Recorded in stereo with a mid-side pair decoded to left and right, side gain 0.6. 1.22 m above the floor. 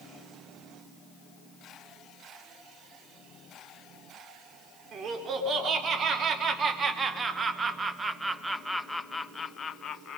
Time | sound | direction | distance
4.9 | laughter | 45° right | 4 m